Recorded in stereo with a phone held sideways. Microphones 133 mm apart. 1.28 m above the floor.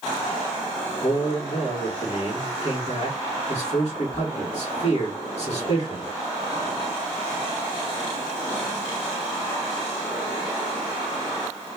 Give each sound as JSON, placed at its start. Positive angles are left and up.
{"t": 1.0, "sound": "a man speaking", "side_deg": 55, "distance_m": 1.5}